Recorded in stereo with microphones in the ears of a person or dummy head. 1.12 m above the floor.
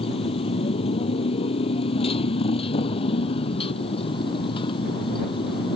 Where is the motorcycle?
30° left (ahead or behind).